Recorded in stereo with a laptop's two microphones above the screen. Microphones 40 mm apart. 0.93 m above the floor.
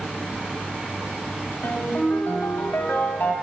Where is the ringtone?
80° left, 2.5 m.